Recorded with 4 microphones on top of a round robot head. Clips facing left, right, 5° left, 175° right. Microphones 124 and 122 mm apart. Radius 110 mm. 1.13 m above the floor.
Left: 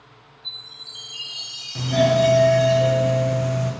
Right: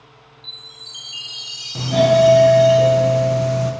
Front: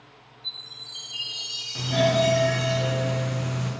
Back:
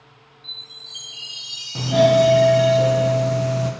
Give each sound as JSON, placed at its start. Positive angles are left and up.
{"t": 0.4, "sound": "a chime", "azimuth_deg": -95, "distance_m": 2.0}
{"t": 1.8, "sound": "a doorbell", "azimuth_deg": -135, "distance_m": 0.6}